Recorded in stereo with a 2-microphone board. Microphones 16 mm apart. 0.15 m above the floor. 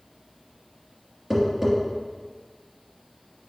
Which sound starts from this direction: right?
Tapping, at 1.3 s.